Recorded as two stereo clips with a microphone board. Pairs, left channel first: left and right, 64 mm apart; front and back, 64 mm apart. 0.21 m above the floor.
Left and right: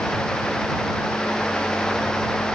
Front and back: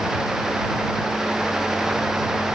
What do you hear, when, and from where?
Only background noise.